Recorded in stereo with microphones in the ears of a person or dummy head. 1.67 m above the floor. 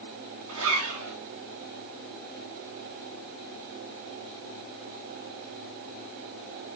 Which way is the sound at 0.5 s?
75° right (ahead or behind).